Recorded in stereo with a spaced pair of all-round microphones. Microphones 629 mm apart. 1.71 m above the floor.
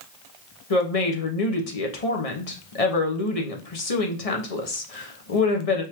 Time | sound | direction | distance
0.7 | a woman speaking | 65° left (ahead or behind) | 1.1 m